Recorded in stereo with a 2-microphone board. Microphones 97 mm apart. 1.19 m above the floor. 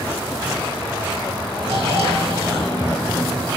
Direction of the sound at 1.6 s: 80° right.